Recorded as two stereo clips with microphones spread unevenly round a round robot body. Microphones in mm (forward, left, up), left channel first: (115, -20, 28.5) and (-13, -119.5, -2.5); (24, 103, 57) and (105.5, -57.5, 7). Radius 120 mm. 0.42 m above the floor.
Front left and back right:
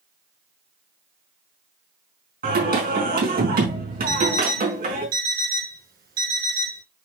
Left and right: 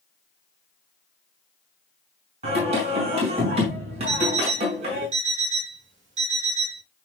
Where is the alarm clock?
115° right, 3.5 m.